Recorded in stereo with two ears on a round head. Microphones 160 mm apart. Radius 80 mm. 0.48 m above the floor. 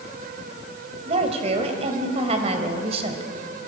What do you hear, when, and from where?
1.1 s a woman speaking: 35° right (ahead or behind), 2.5 m